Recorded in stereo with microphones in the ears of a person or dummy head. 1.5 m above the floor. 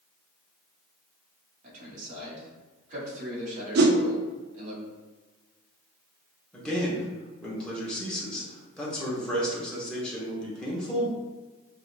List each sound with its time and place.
1.6 s a man speaking: 45° right (ahead or behind), 1.8 m
3.8 s a whoosh: 55° right (ahead or behind), 0.5 m
6.5 s a man speaking: 5° left (ahead or behind), 1.1 m